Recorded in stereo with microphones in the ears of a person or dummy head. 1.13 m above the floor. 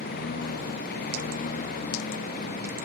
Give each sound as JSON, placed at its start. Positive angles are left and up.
{"t": 0.0, "sound": "a lawn mower", "side_deg": 50}